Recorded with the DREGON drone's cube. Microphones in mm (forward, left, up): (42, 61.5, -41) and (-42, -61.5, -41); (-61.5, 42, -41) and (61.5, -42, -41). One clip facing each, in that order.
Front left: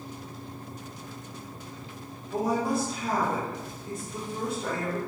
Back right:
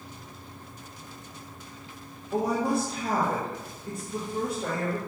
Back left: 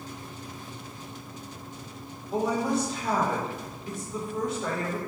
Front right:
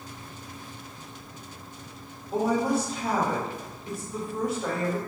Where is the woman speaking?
115° right, 1.3 m.